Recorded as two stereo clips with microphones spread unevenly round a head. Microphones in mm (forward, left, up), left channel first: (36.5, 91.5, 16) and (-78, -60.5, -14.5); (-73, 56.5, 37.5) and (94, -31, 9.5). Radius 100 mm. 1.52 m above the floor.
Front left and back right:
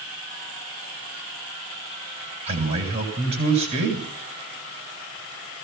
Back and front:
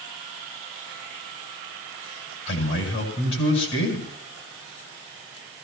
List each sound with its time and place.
2.5 s a man speaking: 175° left, 8.5 m